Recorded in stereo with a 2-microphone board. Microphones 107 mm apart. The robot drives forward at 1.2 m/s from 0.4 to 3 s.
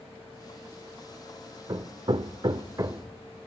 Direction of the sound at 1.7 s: 35° right (ahead or behind).